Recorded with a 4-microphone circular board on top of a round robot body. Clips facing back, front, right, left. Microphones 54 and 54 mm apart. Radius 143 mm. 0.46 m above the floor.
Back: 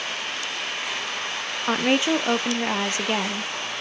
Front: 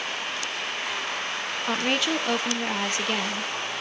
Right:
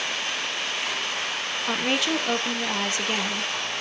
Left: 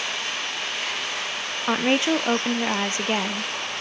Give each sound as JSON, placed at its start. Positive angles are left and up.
{"t": 1.7, "sound": "a woman speaking", "azimuth_deg": 130, "distance_m": 0.8}